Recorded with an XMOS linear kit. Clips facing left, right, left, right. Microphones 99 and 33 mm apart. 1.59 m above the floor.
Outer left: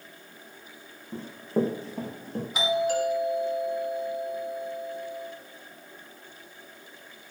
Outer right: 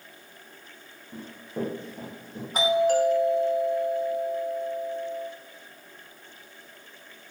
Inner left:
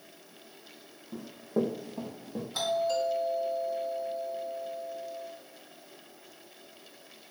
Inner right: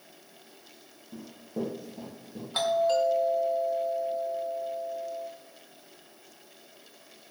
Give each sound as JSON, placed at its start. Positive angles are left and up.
{"t": 1.1, "sound": "running footsteps", "side_deg": 30, "distance_m": 4.0}
{"t": 2.5, "sound": "a doorbell", "side_deg": -45, "distance_m": 3.0}